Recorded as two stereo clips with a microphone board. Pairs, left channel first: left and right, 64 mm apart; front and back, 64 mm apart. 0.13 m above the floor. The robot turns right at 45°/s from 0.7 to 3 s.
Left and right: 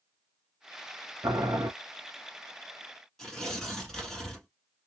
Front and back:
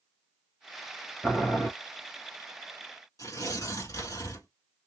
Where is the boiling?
70° right, 2 m; by 1.7 s 45° right, 2 m.